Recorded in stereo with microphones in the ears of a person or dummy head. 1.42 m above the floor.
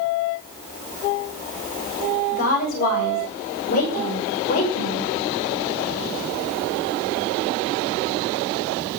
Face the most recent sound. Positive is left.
turn(degrees=40)  # may be behind; listen again after turning